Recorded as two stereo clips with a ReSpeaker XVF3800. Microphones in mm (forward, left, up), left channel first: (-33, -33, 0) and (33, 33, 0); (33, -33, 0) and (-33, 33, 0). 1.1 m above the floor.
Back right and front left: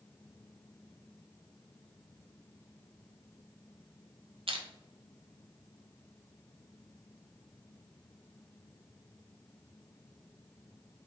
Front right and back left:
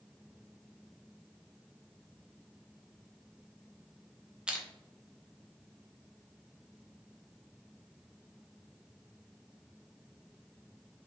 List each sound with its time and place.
4.5 s crushing: 55° left, 0.5 m